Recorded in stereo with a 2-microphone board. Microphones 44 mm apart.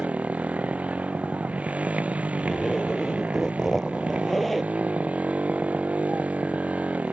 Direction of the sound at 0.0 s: 30° right (ahead or behind).